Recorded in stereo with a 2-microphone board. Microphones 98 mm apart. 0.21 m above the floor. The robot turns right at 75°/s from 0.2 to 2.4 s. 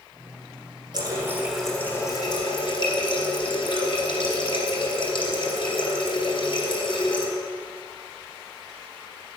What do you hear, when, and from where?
0.9 s a running tap: 50° right, 1.9 m; by 7.3 s 60° left, 1.9 m